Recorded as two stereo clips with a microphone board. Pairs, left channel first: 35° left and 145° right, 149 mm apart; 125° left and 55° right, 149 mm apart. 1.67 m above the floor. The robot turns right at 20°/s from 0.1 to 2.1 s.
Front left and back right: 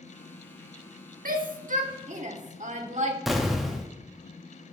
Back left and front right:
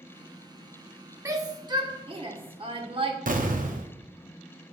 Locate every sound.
1.2 s a shout: 125° right, 1.1 m; by 3.2 s 110° right, 1.1 m
3.3 s an explosion: 55° right, 0.7 m